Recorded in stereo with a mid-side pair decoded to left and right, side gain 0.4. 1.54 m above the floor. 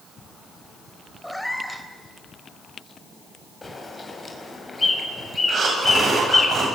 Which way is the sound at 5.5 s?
55° right.